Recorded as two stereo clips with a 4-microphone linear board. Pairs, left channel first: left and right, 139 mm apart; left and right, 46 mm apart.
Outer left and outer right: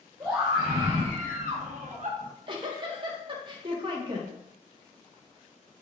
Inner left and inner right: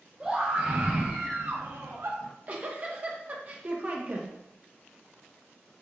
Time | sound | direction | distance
0.2 | a scream | 25° right (ahead or behind) | 1.1 m
2.2 | a giggle | 35° right (ahead or behind) | 0.9 m